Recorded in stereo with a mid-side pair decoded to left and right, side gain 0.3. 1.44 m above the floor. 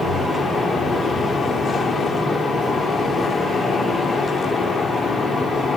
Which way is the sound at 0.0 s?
70° left.